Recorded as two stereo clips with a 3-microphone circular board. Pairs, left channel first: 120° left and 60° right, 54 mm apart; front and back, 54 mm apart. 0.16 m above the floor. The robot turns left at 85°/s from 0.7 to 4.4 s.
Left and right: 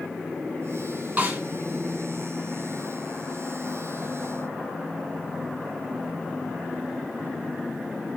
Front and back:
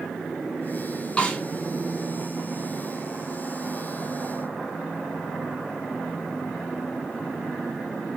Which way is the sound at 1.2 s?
45° right.